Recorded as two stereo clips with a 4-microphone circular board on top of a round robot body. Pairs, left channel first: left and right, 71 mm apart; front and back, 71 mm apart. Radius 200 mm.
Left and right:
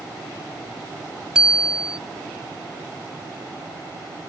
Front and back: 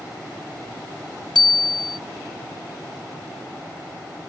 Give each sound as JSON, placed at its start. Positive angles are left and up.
{"t": 1.4, "sound": "a bicycle bell", "azimuth_deg": -10}